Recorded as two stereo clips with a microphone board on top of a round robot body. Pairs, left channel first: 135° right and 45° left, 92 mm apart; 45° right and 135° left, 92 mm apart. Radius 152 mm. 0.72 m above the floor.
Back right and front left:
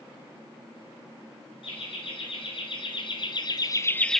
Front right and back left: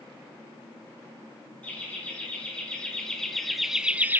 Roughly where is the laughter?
Behind right.